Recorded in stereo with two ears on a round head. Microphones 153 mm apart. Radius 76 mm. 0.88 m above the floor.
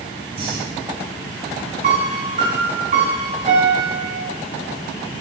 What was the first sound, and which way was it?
Breathing, 35° right (ahead or behind).